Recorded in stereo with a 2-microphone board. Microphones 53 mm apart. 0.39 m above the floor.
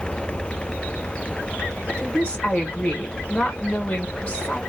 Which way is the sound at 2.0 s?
20° left (ahead or behind).